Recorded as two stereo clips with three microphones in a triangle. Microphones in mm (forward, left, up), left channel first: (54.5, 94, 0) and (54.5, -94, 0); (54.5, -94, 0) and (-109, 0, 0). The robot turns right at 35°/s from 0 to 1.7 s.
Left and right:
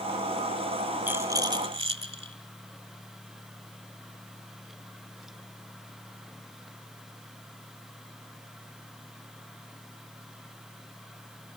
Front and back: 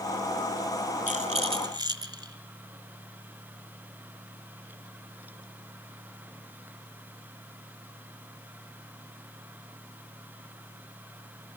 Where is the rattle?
165° right, 1.4 m; by 2.4 s 145° right, 1.4 m.